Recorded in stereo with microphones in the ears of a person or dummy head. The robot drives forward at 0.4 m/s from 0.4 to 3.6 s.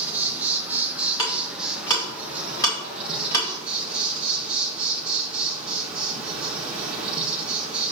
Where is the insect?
10° right (ahead or behind), 0.8 m; by 7.9 s 5° right (ahead or behind), 2 m.